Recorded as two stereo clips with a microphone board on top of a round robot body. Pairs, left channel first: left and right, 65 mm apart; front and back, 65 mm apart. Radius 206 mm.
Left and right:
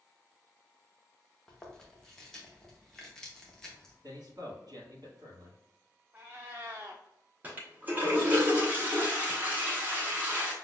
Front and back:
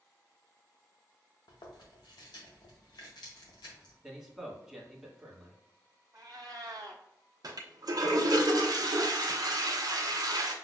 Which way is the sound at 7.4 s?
155° right.